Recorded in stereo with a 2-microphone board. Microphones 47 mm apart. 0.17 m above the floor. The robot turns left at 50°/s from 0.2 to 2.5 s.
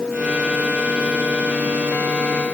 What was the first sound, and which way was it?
Only background noise.